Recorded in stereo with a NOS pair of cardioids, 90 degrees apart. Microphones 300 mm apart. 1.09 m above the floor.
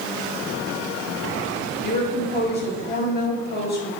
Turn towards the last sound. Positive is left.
turn(degrees=35)